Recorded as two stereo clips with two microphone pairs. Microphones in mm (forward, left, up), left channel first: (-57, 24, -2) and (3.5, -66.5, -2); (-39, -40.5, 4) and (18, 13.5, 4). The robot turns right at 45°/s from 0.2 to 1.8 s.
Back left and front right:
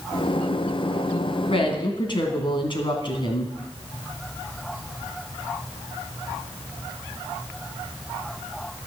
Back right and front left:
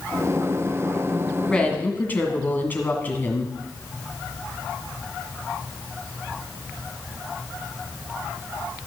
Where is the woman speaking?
145° left, 2 m; by 3.5 s 160° left, 2 m.